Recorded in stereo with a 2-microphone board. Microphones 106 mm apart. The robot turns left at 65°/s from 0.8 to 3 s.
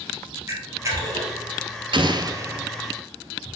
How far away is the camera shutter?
About 3 m.